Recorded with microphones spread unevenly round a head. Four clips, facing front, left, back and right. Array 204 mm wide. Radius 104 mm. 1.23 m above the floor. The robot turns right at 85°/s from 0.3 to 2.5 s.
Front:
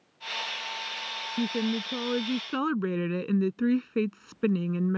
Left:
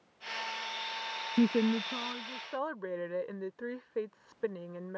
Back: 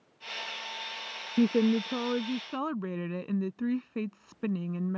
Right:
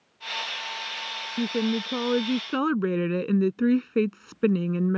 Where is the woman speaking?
170° right; by 5.0 s 75° right.